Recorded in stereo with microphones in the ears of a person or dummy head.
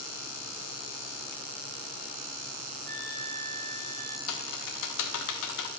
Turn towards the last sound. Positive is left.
turn(degrees=80)